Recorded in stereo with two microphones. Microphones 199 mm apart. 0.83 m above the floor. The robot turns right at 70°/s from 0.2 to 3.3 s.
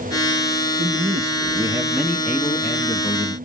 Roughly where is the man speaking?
Right.